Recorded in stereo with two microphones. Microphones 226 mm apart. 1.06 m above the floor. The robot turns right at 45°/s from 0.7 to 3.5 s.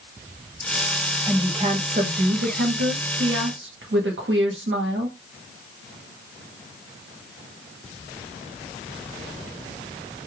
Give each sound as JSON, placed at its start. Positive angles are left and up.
{"t": 1.3, "sound": "a woman speaking", "azimuth_deg": -165, "distance_m": 1.1}